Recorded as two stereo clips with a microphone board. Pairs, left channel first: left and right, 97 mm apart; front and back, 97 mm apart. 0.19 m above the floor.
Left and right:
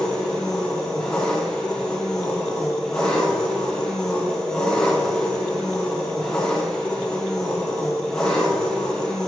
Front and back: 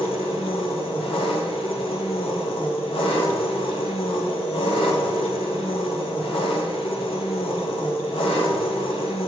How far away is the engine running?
About 1.5 m.